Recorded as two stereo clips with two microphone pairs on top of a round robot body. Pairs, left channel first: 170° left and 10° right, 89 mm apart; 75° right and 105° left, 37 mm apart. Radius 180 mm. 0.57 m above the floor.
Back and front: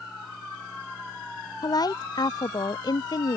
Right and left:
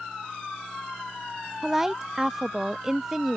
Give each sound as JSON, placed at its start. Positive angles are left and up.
{"t": 1.6, "sound": "a woman speaking", "azimuth_deg": 175}